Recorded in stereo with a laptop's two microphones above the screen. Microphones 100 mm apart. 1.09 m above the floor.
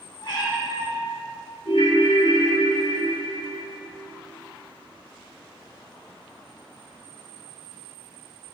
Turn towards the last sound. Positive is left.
turn(degrees=70)  # may be behind; listen again after turning